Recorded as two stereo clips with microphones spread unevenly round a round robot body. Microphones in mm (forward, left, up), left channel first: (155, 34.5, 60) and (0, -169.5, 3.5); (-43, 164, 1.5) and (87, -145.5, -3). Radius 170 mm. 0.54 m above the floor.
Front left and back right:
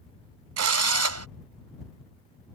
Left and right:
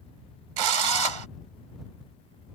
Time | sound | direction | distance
0.6 | a drill | 95° right | ?